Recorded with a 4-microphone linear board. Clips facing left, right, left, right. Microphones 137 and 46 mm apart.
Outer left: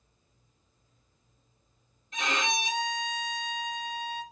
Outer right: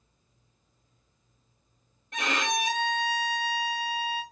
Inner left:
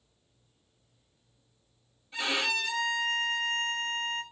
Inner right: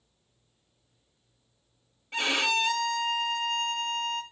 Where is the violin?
65° right (ahead or behind), 0.7 m.